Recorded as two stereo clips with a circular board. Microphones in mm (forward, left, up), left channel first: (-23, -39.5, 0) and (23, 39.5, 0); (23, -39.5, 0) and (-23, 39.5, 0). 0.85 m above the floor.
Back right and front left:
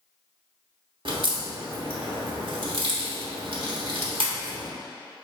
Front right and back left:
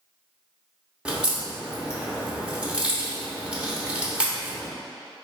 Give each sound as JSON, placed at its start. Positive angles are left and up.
{"t": 1.1, "sound": "a crack", "azimuth_deg": 40, "distance_m": 0.8}